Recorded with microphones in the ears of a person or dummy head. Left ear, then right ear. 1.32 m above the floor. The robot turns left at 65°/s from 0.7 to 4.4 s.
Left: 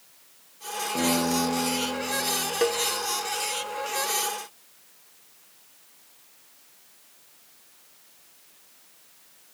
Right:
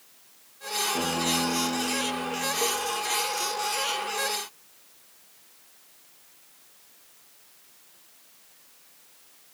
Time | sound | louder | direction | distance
0.9 | a guitar | left 5 dB | 165° left | 5.5 m
2.6 | a cowbell | left 5 dB | 65° left (ahead or behind) | 0.8 m